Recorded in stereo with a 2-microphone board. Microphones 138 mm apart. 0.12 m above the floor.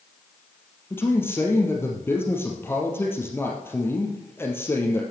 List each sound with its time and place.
0.9 s a man speaking: 15° left (ahead or behind), 3 m